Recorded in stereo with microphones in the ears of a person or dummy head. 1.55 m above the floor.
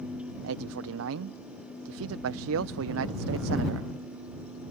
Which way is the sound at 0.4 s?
80° right.